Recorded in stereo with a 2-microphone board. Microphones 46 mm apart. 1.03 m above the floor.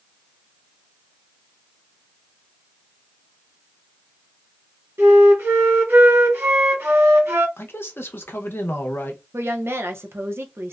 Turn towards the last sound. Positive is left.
turn(degrees=-65)  # may be behind; listen again after turning